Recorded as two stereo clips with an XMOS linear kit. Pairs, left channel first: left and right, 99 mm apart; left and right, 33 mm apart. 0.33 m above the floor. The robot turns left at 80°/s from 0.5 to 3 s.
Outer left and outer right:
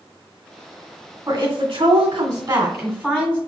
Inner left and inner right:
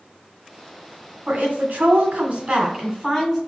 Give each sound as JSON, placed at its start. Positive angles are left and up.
{"t": 1.3, "sound": "a woman speaking", "azimuth_deg": -35, "distance_m": 1.8}